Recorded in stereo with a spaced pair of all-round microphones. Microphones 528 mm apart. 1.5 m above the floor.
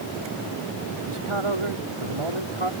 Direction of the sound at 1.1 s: 65° right (ahead or behind).